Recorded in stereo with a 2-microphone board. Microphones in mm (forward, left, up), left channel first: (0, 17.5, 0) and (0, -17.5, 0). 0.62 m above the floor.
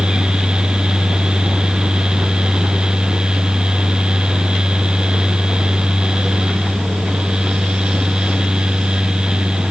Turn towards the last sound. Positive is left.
No sound to turn to.